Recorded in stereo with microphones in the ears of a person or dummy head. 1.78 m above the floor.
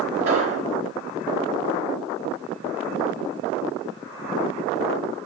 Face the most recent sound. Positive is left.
turn(degrees=-50)  # may be behind; listen again after turning